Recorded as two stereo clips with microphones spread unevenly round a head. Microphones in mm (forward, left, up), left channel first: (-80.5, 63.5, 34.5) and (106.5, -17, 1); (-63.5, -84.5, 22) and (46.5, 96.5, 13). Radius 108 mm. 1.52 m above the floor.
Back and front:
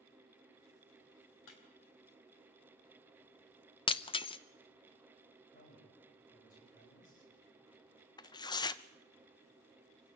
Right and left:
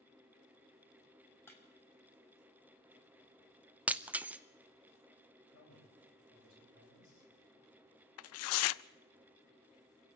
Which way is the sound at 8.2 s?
130° right.